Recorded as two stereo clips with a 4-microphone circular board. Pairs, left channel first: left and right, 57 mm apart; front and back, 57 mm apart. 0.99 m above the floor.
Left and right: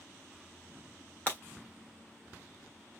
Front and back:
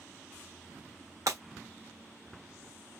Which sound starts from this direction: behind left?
Breaking glass, at 1.3 s.